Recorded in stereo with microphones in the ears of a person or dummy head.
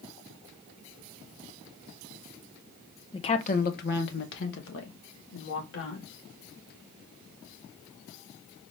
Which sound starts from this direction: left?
A woman speaking, at 3.1 s.